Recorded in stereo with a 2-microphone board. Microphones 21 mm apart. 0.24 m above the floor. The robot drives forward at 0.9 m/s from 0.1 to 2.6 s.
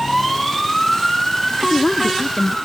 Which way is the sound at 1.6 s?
20° left (ahead or behind).